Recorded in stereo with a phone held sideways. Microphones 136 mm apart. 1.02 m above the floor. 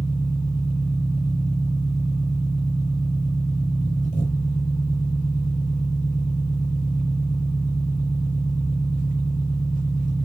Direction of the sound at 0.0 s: 70° left (ahead or behind).